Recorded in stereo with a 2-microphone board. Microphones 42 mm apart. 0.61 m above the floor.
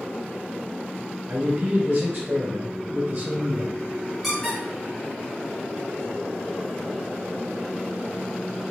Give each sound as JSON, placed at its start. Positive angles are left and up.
{"t": 1.3, "sound": "a man speaking", "side_deg": -35, "distance_m": 1.9}
{"t": 4.2, "sound": "a squeak", "side_deg": 0, "distance_m": 1.4}